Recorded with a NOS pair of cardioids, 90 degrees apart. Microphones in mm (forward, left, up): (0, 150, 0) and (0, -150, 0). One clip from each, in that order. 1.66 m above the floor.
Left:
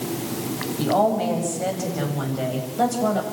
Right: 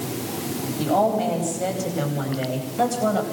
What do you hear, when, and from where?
0.8 s a woman speaking: 5° left, 9.5 m; by 3.2 s 5° right, 8.5 m